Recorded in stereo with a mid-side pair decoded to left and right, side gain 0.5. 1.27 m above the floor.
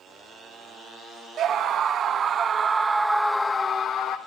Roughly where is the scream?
Ahead right.